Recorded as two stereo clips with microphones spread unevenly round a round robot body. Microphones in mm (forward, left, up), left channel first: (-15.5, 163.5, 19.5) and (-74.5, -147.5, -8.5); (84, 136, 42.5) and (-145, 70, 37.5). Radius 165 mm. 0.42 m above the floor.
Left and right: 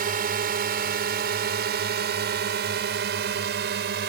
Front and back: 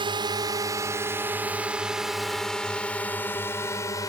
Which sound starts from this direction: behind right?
A drone, at 0.0 s.